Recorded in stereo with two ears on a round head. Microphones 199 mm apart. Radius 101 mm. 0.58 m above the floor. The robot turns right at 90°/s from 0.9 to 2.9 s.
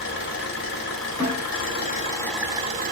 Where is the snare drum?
15° left (ahead or behind), 1.1 m; by 1.4 s 25° left (ahead or behind), 1.1 m.